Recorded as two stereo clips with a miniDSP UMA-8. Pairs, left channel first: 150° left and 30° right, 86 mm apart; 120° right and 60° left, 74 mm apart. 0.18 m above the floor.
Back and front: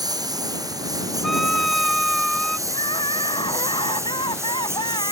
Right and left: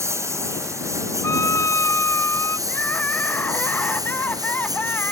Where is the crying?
175° left.